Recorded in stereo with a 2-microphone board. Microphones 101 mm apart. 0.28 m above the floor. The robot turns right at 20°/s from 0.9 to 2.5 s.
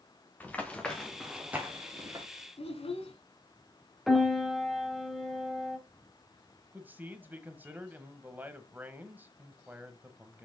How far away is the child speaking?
About 1.7 m.